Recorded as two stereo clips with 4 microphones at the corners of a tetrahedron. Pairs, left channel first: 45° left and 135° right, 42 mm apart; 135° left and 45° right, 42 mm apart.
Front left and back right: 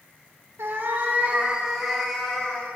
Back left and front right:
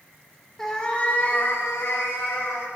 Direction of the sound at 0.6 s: 145° right.